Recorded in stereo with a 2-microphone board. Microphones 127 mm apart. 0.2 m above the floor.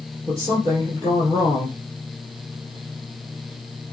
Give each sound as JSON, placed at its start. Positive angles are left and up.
{"t": 0.3, "sound": "a woman speaking", "side_deg": -25, "distance_m": 4.0}